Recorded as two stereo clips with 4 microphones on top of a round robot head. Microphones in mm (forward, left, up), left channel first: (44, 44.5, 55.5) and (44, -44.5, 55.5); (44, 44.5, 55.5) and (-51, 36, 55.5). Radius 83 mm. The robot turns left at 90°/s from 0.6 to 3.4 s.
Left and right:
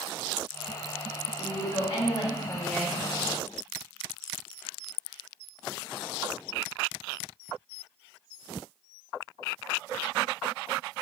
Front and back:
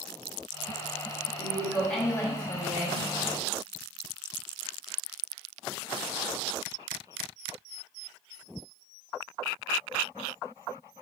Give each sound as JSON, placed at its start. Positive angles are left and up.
{"t": 1.4, "sound": "a woman speaking", "azimuth_deg": 135, "distance_m": 1.4}